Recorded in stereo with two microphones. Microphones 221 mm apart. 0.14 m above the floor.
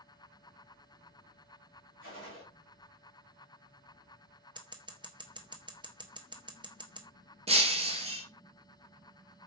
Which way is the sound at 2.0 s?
65° left (ahead or behind).